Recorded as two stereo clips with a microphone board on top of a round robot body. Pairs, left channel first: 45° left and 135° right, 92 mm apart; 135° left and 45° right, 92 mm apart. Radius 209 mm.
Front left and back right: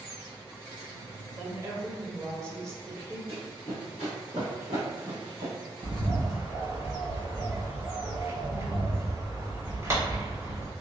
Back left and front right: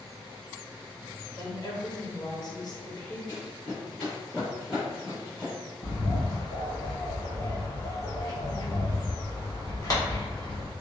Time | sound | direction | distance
1.4 | a woman speaking | 170° left | 1.1 m
3.3 | running footsteps | 95° left | 0.9 m
5.8 | a bird | 175° left | 1.6 m